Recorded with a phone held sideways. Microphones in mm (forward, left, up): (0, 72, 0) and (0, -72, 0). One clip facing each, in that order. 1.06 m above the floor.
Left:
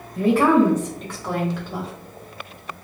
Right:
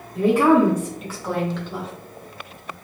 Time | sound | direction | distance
0.1 | a woman speaking | 15° right (ahead or behind) | 1.3 m